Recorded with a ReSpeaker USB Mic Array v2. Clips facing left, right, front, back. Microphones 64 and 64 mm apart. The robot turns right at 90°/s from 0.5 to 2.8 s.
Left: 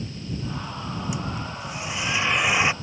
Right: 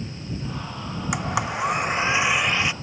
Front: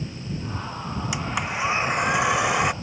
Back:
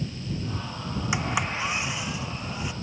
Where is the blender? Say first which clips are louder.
Right 6 dB, back 1 dB; 115° right; by 2.7 s 30° left.